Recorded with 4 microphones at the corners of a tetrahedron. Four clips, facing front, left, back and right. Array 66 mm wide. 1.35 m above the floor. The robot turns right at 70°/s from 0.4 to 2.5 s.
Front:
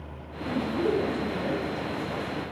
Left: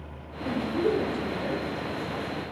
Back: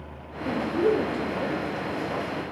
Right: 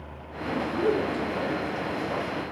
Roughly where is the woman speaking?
Behind left.